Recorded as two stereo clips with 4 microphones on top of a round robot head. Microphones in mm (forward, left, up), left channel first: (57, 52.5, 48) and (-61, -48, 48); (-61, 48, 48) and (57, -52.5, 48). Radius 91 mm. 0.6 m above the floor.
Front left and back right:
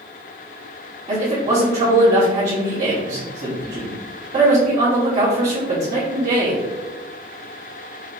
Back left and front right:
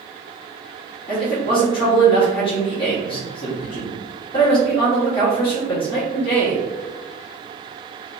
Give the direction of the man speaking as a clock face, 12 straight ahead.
6 o'clock.